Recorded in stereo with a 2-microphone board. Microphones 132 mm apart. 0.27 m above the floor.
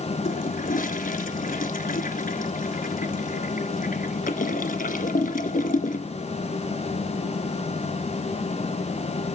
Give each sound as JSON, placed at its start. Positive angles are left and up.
{"t": 0.2, "sound": "a toilet flushing", "side_deg": 85, "distance_m": 0.9}